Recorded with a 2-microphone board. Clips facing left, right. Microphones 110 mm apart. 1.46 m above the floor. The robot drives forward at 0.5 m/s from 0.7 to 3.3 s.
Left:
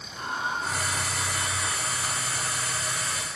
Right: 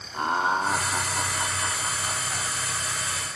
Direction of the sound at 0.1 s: 60° right (ahead or behind).